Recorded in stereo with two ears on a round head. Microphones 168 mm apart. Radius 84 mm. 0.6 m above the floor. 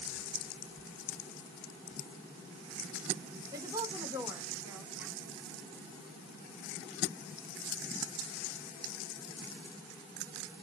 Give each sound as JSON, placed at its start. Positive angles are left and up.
{"t": 3.5, "sound": "a woman speaking", "side_deg": -20, "distance_m": 2.0}